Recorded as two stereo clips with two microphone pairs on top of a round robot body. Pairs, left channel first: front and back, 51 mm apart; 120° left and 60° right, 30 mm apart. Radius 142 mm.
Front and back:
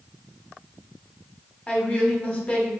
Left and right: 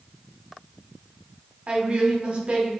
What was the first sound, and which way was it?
A woman speaking, 60° right.